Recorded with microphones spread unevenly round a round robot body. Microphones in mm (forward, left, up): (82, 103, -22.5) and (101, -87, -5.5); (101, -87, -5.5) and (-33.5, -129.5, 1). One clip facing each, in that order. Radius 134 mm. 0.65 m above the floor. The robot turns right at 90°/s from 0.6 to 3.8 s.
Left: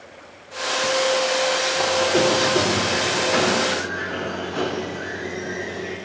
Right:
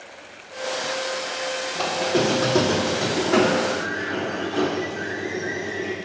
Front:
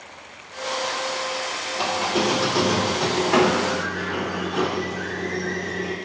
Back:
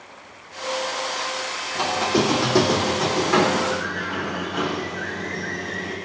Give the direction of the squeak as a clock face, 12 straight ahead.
6 o'clock.